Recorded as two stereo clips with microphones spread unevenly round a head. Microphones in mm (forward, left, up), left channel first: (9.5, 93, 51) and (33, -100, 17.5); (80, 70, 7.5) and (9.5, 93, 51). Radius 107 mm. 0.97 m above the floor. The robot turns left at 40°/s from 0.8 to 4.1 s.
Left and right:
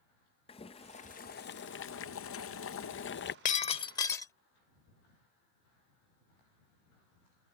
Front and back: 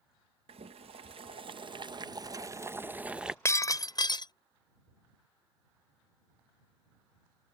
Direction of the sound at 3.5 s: 55° left.